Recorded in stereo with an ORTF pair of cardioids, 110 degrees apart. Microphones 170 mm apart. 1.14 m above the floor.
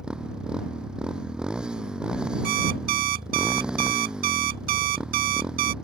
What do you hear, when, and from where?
0.0 s a motorcycle: 5° right
2.4 s an alarm clock: 60° right